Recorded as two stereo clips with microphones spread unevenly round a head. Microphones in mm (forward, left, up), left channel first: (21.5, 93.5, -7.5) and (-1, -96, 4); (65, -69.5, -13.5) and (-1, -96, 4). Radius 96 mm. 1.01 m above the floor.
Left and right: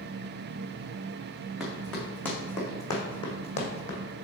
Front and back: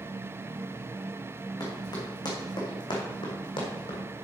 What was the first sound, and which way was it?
Running footsteps, 5° right.